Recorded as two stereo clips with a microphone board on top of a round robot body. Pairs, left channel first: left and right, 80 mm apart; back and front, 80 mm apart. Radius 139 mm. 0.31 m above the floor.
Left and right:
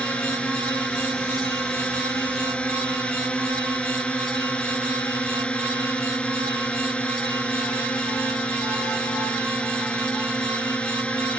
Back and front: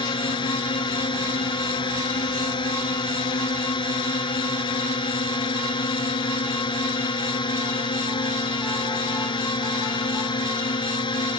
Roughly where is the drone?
Behind.